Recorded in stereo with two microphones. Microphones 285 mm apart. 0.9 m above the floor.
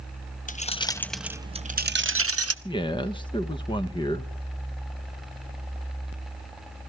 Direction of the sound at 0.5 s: 30° left (ahead or behind).